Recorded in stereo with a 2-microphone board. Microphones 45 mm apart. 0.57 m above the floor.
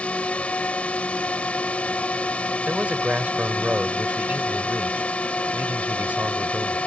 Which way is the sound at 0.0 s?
30° left (ahead or behind).